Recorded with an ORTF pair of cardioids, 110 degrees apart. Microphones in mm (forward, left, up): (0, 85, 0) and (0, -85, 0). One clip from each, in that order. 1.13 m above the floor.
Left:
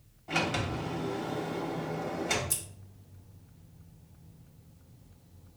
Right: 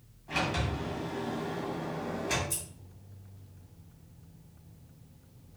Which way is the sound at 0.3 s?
35° left.